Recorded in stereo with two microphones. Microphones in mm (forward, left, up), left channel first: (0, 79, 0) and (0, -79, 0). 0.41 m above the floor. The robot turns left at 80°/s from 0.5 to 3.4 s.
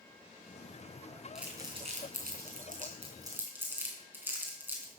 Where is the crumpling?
5° right (ahead or behind), 3 m; by 4.9 s 10° right (ahead or behind), 3 m.